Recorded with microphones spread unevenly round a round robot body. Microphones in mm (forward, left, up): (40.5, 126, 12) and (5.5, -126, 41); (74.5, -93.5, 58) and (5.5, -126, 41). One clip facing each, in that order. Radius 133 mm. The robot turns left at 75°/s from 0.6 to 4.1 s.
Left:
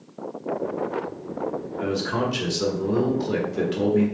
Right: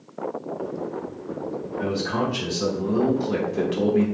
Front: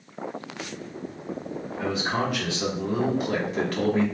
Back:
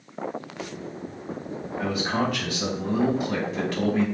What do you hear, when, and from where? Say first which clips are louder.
1.8 s a man speaking: even, back 1 dB; 145° left, 1.7 m; by 4.0 s 25° right, 1.7 m